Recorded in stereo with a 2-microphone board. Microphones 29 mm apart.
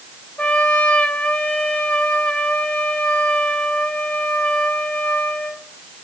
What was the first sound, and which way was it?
A trumpet, 50° left (ahead or behind).